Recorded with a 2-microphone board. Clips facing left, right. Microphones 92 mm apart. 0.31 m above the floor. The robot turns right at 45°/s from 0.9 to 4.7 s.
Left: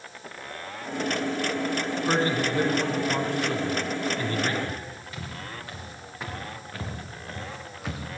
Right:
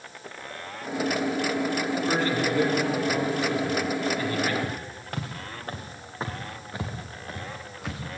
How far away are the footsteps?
About 4 m.